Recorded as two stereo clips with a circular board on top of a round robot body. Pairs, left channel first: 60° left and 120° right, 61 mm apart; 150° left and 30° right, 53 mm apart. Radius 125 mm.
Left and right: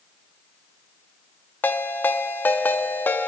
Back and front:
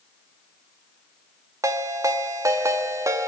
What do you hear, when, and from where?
1.6 s a ringtone: straight ahead, 0.8 m